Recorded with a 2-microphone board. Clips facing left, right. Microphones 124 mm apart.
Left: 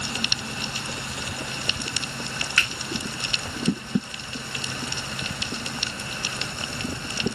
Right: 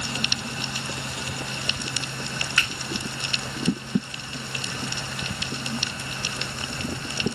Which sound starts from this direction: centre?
A finger snap, at 2.6 s.